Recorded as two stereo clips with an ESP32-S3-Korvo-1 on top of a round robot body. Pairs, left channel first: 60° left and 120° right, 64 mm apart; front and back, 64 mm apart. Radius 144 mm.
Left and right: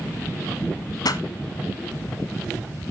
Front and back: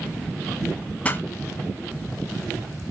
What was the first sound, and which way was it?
A pop, 65° left.